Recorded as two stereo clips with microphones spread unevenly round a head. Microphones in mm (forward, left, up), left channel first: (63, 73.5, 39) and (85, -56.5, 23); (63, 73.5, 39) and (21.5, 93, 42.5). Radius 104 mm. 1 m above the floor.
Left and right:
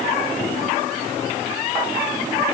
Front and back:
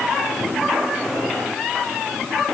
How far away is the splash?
No splash in this recording.